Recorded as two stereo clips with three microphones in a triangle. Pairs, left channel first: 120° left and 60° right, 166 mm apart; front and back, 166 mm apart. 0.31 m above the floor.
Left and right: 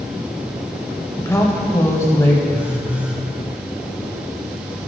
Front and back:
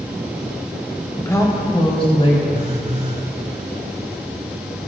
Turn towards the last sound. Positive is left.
turn(degrees=-140)